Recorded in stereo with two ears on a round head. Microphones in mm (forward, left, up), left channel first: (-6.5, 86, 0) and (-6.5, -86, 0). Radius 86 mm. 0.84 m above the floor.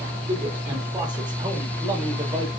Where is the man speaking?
25° right (ahead or behind), 2.5 m; by 2.5 s 20° right (ahead or behind), 4 m.